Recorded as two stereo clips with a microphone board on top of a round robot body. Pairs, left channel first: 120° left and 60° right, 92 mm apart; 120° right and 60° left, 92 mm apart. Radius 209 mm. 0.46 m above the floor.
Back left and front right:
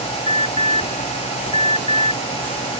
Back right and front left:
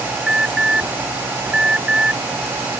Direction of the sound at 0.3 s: 140° left.